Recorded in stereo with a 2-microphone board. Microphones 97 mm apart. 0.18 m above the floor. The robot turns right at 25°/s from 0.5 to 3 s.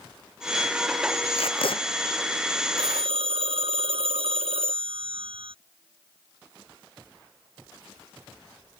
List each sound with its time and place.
1.4 s tape being pulled: 75° left (ahead or behind); by 1.8 s 65° left (ahead or behind)
2.8 s a phone ringing: 70° right (ahead or behind); by 5.5 s 75° right (ahead or behind)